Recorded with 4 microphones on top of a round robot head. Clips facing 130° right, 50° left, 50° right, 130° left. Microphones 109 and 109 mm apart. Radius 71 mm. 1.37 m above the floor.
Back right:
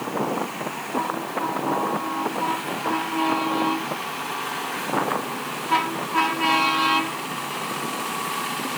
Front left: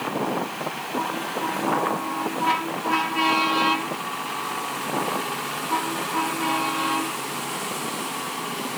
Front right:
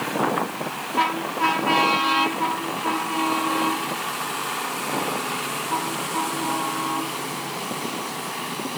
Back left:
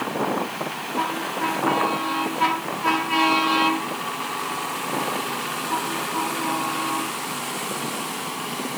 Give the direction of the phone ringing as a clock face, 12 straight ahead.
I don't hear a phone ringing.